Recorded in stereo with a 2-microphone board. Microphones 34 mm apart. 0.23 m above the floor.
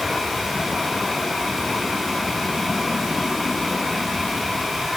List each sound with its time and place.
Only background noise.